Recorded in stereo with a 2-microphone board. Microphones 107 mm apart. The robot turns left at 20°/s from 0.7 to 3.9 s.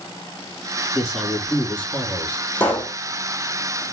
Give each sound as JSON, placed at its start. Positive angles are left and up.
{"t": 0.9, "sound": "a man speaking", "azimuth_deg": -175, "distance_m": 3.0}
{"t": 2.6, "sound": "a pop", "side_deg": 15, "distance_m": 1.5}